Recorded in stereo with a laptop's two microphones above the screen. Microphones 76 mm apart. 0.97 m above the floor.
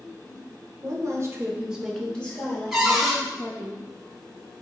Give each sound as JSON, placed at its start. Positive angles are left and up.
{"t": 0.8, "sound": "a woman speaking", "side_deg": -50, "distance_m": 0.8}
{"t": 2.7, "sound": "a cupboard door", "side_deg": -5, "distance_m": 1.9}